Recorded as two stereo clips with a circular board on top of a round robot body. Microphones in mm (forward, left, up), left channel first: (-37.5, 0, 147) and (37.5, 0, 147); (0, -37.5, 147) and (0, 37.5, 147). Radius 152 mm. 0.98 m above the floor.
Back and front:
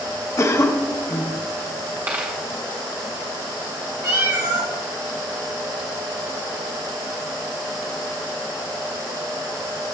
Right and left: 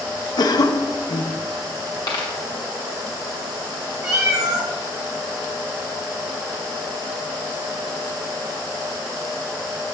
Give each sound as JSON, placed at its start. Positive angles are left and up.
{"t": 0.4, "sound": "a cough", "azimuth_deg": -125, "distance_m": 0.8}
{"t": 2.1, "sound": "a dropped coin", "azimuth_deg": -60, "distance_m": 0.9}
{"t": 4.0, "sound": "a cat meowing", "azimuth_deg": 40, "distance_m": 1.6}